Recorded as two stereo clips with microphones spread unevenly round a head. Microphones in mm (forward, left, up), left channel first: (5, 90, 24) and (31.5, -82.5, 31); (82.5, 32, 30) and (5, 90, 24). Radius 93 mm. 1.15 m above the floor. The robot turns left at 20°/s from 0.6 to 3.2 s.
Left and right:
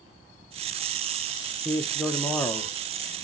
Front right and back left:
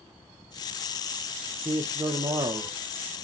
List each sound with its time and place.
1.6 s a man speaking: 170° right, 0.6 m; by 2.7 s 165° left, 0.6 m